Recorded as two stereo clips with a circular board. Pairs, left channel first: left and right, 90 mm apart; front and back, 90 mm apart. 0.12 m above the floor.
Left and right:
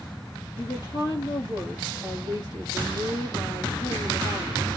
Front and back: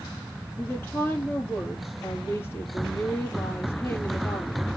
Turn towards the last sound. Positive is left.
turn(degrees=60)